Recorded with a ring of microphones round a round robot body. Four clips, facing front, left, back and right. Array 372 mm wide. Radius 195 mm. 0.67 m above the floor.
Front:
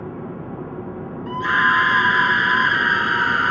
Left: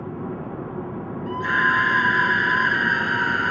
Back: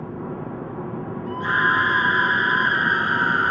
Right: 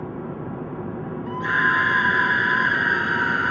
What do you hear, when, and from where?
1.3 s a scream: straight ahead